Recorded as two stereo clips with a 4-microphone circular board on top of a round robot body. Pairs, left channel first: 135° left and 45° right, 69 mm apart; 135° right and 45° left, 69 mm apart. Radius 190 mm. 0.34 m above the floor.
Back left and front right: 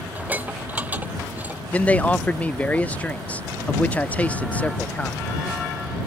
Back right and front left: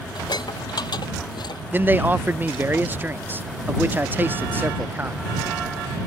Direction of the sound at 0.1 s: 115° right.